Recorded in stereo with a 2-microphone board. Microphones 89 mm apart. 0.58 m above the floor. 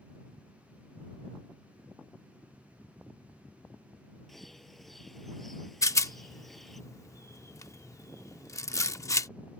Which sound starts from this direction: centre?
A bird, at 4.3 s.